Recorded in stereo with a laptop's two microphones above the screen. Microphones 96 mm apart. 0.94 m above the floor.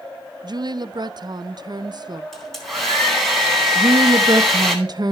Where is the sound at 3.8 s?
45° right (ahead or behind), 0.5 m.